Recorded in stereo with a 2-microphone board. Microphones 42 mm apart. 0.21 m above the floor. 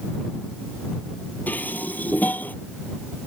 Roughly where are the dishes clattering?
Left.